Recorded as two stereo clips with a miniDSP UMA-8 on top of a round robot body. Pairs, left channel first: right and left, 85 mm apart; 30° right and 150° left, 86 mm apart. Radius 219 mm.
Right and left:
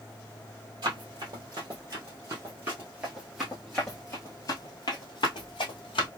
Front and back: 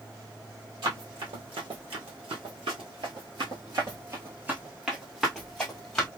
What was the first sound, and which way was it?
Running footsteps, 125° left.